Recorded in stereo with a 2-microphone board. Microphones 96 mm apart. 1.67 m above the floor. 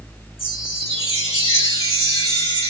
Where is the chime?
70° left (ahead or behind), 2.5 m.